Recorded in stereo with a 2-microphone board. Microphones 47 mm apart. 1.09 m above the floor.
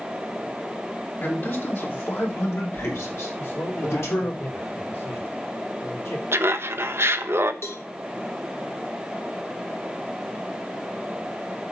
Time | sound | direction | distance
1.2 | a man speaking | 50° left (ahead or behind) | 3 m
3.4 | a man speaking | 70° left (ahead or behind) | 3.5 m
6.3 | laughter | 60° right (ahead or behind) | 0.9 m
7.6 | a cowbell | 65° left (ahead or behind) | 1.2 m